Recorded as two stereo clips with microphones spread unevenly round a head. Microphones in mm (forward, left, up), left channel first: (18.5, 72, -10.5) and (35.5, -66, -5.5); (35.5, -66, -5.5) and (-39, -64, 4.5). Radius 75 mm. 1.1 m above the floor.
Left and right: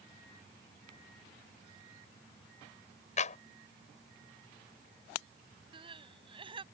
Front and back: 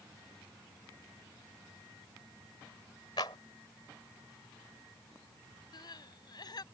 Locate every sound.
3.2 s a clap: 60° left
5.7 s crying: 30° right